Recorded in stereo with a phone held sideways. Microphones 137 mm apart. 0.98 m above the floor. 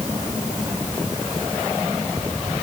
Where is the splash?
No splash in this recording.